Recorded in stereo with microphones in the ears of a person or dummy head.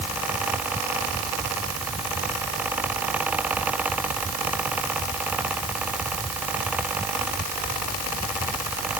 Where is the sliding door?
No sliding door in this recording.